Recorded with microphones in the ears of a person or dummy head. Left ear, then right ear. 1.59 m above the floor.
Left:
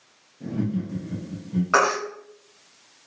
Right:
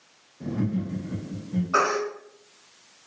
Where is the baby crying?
65° left (ahead or behind), 0.8 m.